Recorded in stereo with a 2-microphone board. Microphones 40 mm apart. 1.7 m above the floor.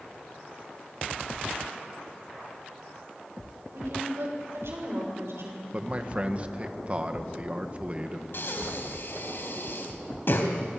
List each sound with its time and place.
3.7 s a woman speaking: 90° right, 7.5 m; by 5.6 s 85° right, 6 m
5.7 s a man speaking: 30° right (ahead or behind), 1.7 m
8.3 s breathing: 65° left (ahead or behind), 3 m